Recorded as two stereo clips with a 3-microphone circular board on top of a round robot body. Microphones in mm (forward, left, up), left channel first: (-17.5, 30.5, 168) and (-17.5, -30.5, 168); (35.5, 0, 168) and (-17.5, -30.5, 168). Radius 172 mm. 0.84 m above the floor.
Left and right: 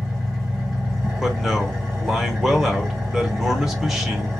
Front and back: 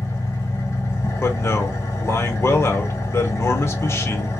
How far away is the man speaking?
About 1.4 m.